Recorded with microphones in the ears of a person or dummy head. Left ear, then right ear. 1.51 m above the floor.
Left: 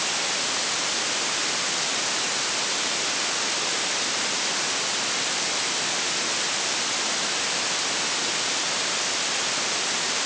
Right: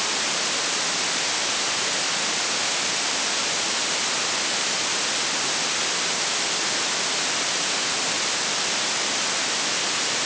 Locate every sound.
Only background noise.